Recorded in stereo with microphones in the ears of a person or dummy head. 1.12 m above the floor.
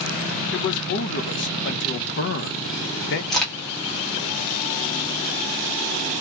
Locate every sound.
0.5 s a man speaking: 50° left (ahead or behind), 0.7 m
3.3 s a crack: 5° left (ahead or behind), 1.0 m